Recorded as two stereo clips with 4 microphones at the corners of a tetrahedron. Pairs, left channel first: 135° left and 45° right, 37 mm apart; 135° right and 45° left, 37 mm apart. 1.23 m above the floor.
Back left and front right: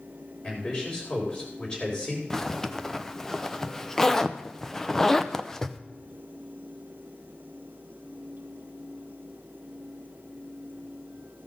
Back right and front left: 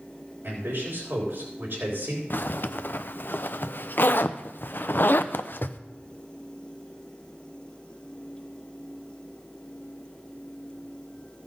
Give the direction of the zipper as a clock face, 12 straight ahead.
5 o'clock.